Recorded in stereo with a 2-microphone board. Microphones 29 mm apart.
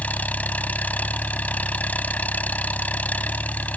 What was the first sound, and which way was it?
An engine running, 60° left (ahead or behind).